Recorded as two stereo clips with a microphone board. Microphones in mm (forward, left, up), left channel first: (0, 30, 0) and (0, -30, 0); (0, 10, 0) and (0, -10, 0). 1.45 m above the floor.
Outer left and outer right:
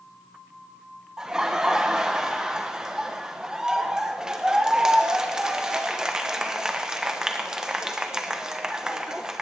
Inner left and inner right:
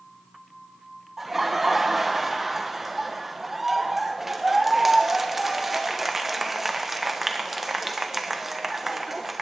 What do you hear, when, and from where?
1.2 s laughter: 10° right (ahead or behind), 1.4 m